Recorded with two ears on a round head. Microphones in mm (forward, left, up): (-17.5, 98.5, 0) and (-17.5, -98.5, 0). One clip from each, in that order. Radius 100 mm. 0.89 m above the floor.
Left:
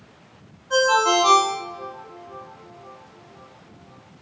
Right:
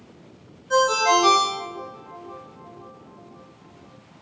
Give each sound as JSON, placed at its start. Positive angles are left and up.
{"t": 0.7, "sound": "a ringtone", "side_deg": -45, "distance_m": 1.1}